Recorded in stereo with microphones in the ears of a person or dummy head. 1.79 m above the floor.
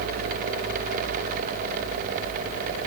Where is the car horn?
I don't hear a car horn.